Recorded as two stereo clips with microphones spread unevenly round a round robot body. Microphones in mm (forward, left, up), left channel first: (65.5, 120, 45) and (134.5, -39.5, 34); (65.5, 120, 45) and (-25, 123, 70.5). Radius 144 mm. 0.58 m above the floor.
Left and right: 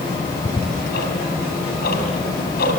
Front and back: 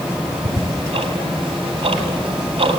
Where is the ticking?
165° left, 3.5 m.